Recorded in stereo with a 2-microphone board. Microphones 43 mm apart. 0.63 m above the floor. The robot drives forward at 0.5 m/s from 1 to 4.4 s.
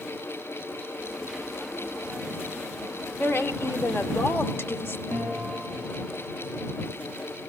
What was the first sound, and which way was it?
A woman speaking, 65° left (ahead or behind).